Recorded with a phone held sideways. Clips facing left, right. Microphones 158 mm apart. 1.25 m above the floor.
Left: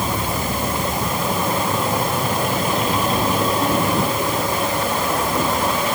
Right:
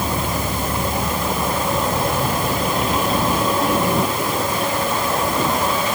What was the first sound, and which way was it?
Only background noise.